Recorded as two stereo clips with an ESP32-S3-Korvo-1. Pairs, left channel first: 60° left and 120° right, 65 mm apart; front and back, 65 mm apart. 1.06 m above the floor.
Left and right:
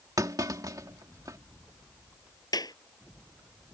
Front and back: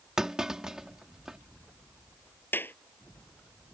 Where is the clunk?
100° right.